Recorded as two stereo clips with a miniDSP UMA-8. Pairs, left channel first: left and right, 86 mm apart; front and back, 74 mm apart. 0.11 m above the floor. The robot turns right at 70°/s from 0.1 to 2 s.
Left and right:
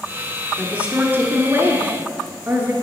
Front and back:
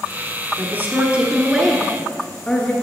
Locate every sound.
0.6 s a woman speaking: 165° right, 1.2 m; by 2.7 s 65° right, 1.2 m